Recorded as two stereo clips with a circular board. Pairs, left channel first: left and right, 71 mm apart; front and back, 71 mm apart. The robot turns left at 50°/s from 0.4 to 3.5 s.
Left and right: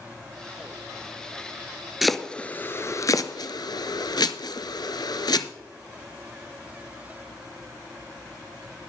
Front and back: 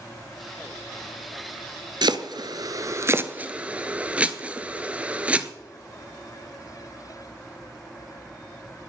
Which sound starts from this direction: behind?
Chopping, at 2.0 s.